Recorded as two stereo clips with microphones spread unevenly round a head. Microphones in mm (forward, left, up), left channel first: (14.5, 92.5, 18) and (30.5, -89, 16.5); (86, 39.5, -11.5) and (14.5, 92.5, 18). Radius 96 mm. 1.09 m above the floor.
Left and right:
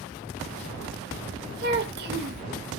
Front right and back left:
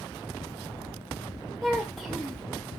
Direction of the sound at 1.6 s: 125° right.